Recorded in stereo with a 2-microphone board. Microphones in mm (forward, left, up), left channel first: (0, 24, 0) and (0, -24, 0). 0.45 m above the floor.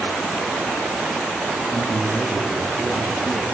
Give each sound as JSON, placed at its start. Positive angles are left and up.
{"t": 1.7, "sound": "a man speaking", "side_deg": 0, "distance_m": 2.5}